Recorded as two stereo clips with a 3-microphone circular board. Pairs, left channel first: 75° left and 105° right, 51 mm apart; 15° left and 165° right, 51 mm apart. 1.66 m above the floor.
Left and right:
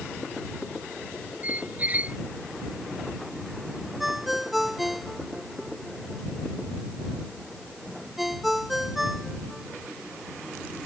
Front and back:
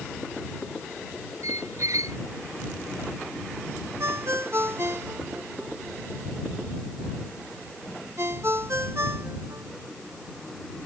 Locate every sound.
1.4 s a squeak: 165° right
4.0 s a ringtone: 170° left